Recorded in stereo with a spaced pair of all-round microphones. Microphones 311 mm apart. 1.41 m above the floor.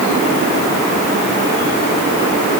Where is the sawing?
I don't hear sawing.